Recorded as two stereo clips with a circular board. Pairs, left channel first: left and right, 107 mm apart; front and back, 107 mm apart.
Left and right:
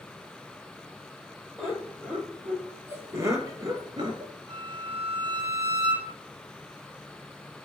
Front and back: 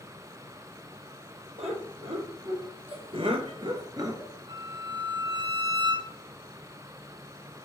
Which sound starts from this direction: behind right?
A violin, at 4.5 s.